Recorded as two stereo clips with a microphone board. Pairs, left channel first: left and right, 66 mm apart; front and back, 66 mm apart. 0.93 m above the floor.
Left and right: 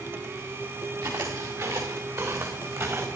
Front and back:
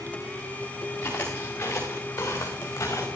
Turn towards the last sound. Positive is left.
turn(degrees=-45)